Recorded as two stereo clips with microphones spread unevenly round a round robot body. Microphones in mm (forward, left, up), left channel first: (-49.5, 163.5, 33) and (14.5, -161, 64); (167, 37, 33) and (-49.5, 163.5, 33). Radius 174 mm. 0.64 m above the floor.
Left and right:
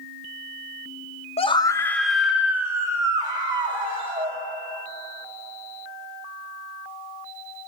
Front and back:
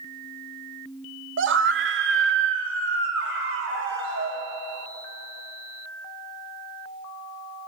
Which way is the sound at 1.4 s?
165° left.